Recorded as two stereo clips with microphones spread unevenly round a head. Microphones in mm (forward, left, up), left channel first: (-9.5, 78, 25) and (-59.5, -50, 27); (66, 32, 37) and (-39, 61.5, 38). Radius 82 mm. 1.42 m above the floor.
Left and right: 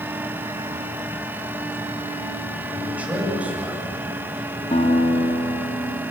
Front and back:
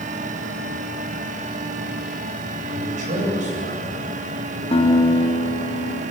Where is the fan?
175° left, 1.6 m.